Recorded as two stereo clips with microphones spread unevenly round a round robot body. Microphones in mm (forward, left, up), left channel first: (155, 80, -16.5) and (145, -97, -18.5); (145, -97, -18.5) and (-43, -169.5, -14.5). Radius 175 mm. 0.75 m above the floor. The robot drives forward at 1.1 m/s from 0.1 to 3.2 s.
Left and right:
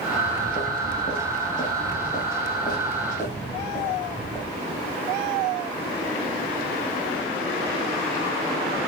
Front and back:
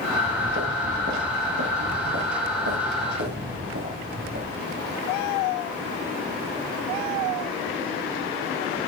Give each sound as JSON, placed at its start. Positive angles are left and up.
{"t": 0.1, "sound": "footsteps", "azimuth_deg": 140, "distance_m": 4.0}